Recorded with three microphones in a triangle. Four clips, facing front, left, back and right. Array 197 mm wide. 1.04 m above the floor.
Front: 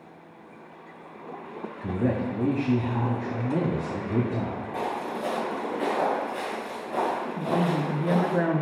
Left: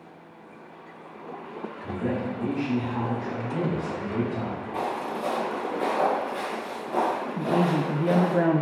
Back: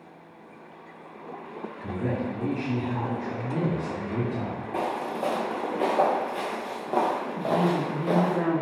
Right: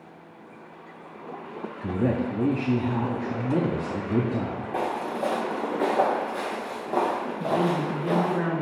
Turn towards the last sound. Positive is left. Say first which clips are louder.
# left 1 dB, back 2 dB
turn(degrees=75)